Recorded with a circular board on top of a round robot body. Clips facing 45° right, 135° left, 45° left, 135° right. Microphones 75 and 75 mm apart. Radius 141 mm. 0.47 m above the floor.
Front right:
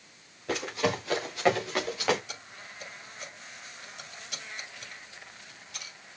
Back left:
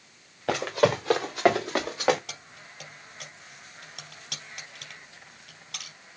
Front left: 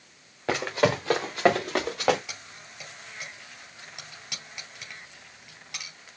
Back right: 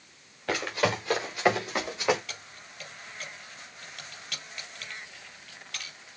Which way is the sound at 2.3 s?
115° left.